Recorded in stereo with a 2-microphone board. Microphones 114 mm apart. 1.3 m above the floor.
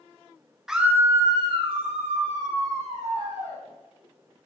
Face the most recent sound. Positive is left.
turn(degrees=-85)